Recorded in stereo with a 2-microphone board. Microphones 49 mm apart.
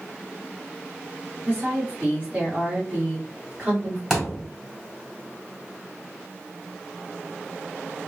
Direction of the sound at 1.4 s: 30° right (ahead or behind).